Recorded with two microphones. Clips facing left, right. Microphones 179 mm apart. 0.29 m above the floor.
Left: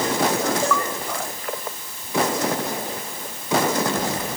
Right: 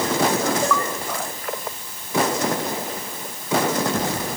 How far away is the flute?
I don't hear a flute.